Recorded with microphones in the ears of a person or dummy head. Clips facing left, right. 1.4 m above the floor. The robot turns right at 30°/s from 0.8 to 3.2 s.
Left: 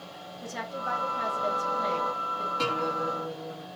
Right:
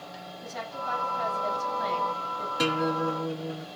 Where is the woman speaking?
120° left, 8 m; by 2.5 s 170° left, 8 m.